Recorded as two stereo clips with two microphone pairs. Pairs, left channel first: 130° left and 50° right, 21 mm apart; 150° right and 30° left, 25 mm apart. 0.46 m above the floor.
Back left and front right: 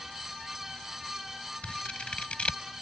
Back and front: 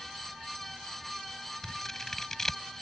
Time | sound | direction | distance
1.6 | scissors | 140° left | ?